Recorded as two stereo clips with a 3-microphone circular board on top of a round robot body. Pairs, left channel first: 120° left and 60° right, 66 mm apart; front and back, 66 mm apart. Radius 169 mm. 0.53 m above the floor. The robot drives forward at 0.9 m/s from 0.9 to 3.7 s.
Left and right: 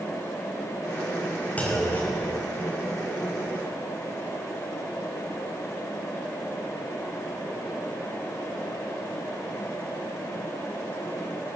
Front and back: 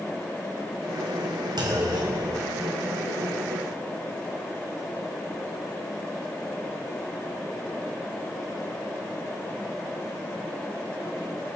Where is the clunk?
170° right, 4.5 m; by 3.0 s 175° right, 5.5 m.